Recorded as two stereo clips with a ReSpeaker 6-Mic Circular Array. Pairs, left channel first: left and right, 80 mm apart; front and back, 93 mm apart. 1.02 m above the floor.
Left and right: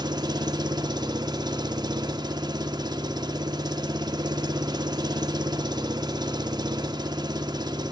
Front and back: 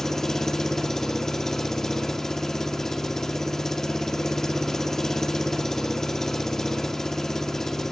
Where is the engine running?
85° right, 0.8 m.